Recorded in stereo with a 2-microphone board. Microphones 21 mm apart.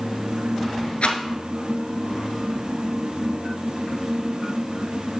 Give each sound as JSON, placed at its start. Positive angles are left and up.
{"t": 1.0, "sound": "a rattle", "side_deg": 80, "distance_m": 1.2}